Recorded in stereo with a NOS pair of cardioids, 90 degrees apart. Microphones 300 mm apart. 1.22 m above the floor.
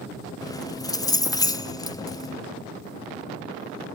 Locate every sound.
0.4 s keys jangling: 10° left, 1.1 m